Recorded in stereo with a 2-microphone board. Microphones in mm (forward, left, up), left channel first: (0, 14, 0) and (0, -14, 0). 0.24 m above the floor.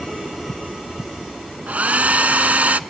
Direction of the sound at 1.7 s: 65° right (ahead or behind).